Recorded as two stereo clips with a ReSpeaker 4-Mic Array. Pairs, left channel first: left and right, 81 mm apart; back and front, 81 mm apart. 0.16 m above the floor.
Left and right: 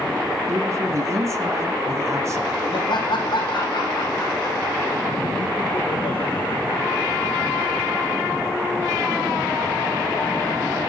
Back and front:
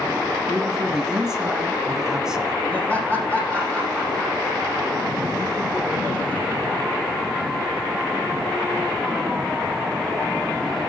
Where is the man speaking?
75° right, 1.7 m.